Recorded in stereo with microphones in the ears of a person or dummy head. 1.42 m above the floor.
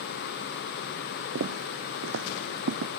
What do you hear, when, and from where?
1.4 s footsteps: 60° right (ahead or behind); by 2.9 s 70° right (ahead or behind)